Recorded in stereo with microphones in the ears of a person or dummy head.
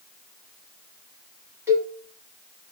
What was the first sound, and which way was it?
A cowbell, 10° right (ahead or behind).